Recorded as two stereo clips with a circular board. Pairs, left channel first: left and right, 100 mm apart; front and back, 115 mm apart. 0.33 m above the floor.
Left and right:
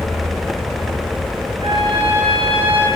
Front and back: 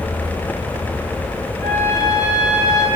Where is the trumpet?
65° right, 5.5 m.